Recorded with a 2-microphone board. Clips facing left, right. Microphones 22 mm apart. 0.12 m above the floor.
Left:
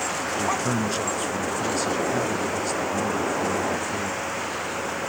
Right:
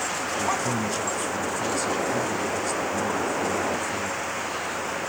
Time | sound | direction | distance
0.4 | a man speaking | 20° left (ahead or behind) | 1.3 m